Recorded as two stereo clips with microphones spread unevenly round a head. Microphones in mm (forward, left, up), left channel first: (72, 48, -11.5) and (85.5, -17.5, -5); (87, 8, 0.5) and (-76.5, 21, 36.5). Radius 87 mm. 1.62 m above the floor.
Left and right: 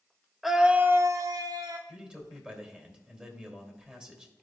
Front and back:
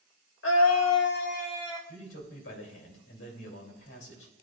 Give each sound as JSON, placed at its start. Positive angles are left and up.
{"t": 0.4, "sound": "a scream", "azimuth_deg": 10, "distance_m": 0.9}
{"t": 1.9, "sound": "a man speaking", "azimuth_deg": -5, "distance_m": 2.5}